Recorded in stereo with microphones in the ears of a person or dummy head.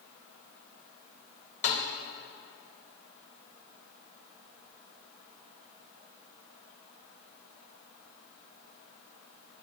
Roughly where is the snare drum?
Left.